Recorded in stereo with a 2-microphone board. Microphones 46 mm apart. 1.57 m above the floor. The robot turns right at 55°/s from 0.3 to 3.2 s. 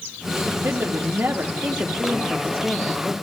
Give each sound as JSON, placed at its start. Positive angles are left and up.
{"t": 0.5, "sound": "a woman speaking", "azimuth_deg": -115, "distance_m": 1.0}